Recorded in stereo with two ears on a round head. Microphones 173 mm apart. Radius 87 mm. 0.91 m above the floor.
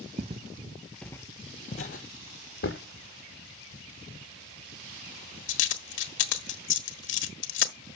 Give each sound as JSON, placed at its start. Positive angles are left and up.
{"t": 0.2, "sound": "footsteps", "side_deg": -35, "distance_m": 1.1}
{"t": 2.6, "sound": "a dropped coin", "side_deg": 70, "distance_m": 1.4}